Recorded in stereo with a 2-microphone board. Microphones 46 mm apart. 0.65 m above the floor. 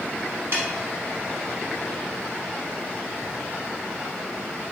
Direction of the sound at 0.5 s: 60° right (ahead or behind).